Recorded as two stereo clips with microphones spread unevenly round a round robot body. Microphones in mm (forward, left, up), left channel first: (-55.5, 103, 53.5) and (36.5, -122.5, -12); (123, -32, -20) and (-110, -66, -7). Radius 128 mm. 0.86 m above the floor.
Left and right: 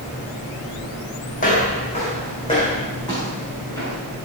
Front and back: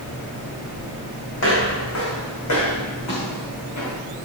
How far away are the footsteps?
About 3 m.